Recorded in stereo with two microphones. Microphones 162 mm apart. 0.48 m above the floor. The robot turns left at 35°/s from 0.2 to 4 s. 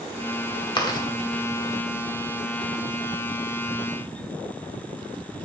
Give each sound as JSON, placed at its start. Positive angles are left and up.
{"t": 0.8, "sound": "chewing", "side_deg": 30, "distance_m": 1.0}